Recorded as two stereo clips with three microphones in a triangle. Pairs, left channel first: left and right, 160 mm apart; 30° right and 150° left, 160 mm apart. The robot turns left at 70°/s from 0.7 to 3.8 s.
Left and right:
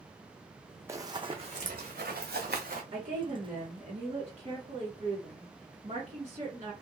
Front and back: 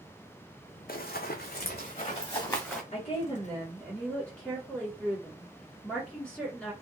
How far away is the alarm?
I don't hear an alarm.